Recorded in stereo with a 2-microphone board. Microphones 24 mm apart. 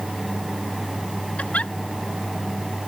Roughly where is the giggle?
Left.